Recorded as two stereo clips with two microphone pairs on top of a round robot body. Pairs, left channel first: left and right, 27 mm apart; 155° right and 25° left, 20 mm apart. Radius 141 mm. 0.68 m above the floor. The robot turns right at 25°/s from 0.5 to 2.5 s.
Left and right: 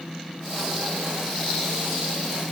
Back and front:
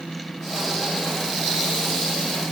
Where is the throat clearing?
I don't hear throat clearing.